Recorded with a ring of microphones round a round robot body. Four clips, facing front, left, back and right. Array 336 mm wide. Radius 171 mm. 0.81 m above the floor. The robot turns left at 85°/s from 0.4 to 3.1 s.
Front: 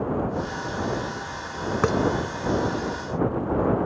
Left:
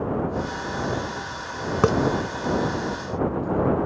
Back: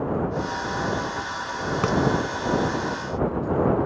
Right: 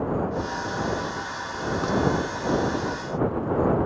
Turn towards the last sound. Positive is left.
turn(degrees=-30)